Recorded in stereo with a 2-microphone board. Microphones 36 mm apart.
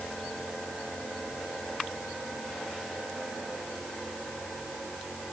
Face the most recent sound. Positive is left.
No sound to turn to.